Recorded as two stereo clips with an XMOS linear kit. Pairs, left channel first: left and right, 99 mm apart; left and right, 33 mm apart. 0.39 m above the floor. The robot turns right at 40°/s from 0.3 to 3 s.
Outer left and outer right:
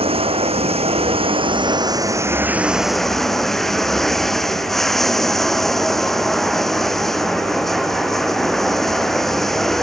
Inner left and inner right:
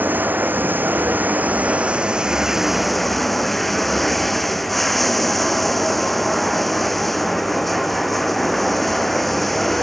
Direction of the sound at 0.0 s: 105° right.